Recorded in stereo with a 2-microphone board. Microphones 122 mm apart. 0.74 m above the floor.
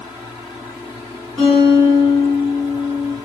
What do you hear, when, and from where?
1.4 s a guitar: centre (ahead or behind), 1.8 m